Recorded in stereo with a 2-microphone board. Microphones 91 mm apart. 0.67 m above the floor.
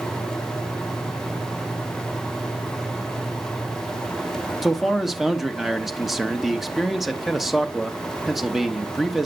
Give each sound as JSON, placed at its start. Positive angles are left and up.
{"t": 4.6, "sound": "a man speaking", "side_deg": 0, "distance_m": 0.9}